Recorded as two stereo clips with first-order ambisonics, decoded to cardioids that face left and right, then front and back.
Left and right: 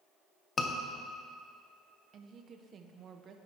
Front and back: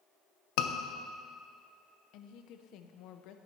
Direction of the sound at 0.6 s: 20° left.